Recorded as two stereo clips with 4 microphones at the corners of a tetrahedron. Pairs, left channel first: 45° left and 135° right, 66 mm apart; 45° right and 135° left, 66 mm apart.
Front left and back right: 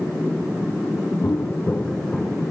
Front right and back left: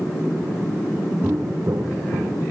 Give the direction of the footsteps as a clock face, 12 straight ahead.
9 o'clock.